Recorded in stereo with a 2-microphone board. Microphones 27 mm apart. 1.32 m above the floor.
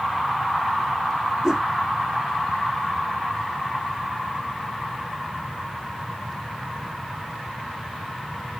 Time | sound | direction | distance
1.4 | a whoosh | 25° right (ahead or behind) | ?